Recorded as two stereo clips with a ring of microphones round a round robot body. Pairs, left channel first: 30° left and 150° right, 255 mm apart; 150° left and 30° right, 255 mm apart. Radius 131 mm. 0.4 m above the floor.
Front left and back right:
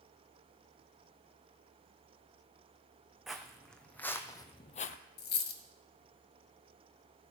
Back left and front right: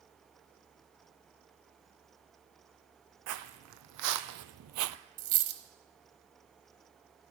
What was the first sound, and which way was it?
Footsteps, 60° right.